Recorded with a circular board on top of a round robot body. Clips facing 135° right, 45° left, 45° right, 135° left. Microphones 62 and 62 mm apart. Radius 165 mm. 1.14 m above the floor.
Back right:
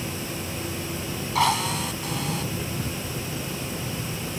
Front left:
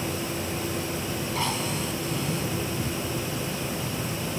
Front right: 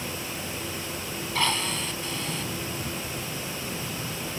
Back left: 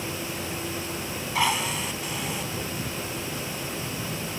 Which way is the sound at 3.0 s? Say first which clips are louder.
Front left 2 dB, back left 1 dB; 30° right.